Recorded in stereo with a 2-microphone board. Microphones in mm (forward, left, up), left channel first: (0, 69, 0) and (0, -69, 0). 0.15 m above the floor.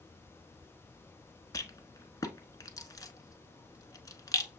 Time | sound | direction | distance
1.5 | a rattle | 25° left (ahead or behind) | 0.7 m